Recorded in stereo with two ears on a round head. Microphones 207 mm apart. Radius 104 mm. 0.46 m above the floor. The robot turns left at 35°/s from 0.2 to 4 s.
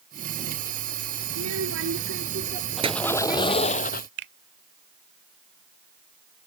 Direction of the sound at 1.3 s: 100° right.